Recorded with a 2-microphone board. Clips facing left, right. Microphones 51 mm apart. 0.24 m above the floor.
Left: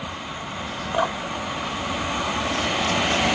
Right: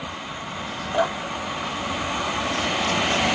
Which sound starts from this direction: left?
Dripping, at 0.9 s.